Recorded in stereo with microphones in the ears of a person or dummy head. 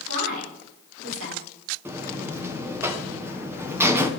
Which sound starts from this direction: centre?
A buzzer, at 1.9 s.